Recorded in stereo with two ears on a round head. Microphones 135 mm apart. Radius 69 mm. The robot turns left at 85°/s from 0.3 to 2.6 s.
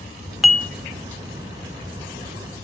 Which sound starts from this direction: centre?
Dishes clattering, at 0.4 s.